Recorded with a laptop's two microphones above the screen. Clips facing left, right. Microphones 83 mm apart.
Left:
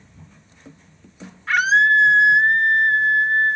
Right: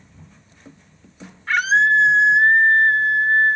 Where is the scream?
Centre (ahead or behind), 2.5 m.